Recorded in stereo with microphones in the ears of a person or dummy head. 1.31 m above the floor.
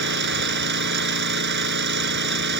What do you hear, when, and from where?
0.0 s an engine running: 60° right (ahead or behind)